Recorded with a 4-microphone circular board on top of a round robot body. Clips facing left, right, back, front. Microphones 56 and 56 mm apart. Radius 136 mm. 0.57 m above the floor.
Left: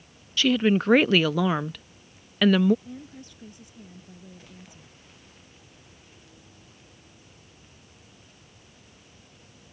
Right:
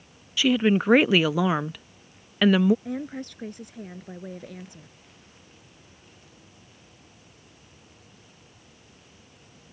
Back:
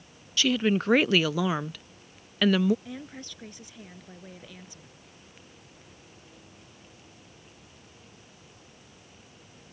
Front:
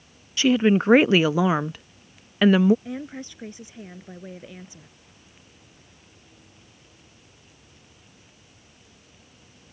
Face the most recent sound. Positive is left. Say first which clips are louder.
# right 10 dB, front 7 dB
turn(degrees=-65)